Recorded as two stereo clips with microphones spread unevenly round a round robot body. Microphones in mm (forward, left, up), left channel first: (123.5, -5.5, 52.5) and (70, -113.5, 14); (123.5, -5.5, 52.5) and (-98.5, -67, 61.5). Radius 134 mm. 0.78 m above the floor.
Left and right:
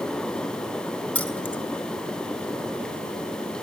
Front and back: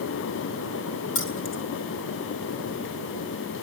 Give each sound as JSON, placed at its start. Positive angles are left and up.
{"t": 1.1, "sound": "keys jangling", "azimuth_deg": -15, "distance_m": 3.5}